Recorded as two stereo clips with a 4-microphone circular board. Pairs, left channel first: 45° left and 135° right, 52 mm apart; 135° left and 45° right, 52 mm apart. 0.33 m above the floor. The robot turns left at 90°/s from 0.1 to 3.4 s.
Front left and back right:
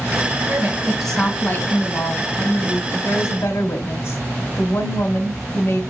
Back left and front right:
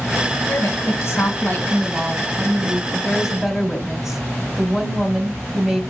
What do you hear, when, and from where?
0.5 s a woman speaking: straight behind, 2.5 m; by 2.8 s 30° right, 2.5 m
2.9 s a woman speaking: 80° left, 1.6 m; by 5.8 s 40° left, 1.6 m